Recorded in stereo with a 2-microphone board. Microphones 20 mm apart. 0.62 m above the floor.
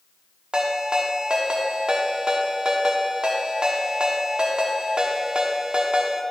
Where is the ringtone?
50° right (ahead or behind), 1.0 m.